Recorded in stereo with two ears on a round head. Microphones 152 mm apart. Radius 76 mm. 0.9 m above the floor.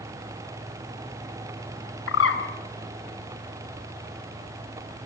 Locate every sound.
2.1 s a bird: 85° left, 3.5 m